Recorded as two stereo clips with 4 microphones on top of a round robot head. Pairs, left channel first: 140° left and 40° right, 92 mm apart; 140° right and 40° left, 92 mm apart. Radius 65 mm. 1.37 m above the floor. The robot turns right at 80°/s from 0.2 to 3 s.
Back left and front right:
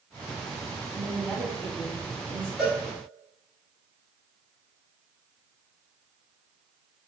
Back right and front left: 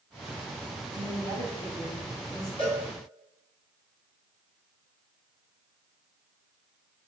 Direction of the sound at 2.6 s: 125° right.